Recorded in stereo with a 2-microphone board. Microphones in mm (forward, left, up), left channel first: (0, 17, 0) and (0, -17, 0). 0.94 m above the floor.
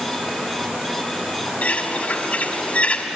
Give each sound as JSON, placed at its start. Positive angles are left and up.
{"t": 1.6, "sound": "a bird", "side_deg": 50, "distance_m": 2.0}